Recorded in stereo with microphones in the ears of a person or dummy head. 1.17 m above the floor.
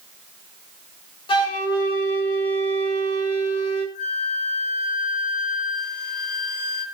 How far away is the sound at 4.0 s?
About 4 m.